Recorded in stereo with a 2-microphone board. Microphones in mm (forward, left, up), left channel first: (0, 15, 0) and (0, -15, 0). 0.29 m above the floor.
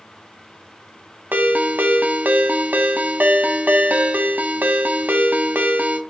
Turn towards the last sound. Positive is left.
turn(degrees=-65)  # may be behind; listen again after turning